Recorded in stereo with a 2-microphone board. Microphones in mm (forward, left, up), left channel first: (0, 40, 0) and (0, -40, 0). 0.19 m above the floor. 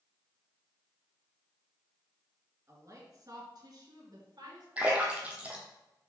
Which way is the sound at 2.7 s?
40° right (ahead or behind).